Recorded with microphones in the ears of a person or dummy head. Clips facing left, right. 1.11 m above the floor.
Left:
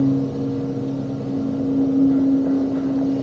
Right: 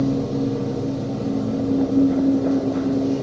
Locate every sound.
0.0 s a machine running: 55° right (ahead or behind), 2 m